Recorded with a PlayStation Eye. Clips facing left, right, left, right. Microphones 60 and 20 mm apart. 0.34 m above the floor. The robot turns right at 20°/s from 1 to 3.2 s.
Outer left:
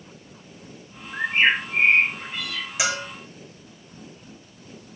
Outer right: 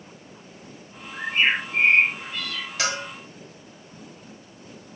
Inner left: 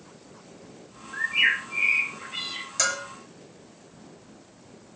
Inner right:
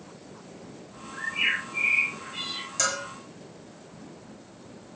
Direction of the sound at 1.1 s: 135° left.